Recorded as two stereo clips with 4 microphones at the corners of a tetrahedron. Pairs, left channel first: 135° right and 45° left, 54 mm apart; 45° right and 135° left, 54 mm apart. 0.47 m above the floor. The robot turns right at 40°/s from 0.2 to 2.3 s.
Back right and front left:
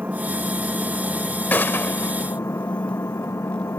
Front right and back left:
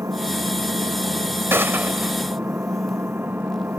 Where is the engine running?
105° left; by 3.8 s 170° right.